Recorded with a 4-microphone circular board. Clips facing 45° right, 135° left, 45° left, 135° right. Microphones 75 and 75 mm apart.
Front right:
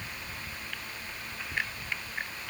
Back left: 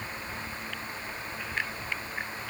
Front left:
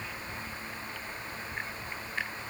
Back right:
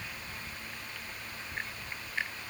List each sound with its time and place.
Only background noise.